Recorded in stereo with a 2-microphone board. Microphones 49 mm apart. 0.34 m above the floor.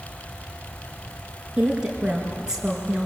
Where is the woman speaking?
15° right (ahead or behind), 4.5 m.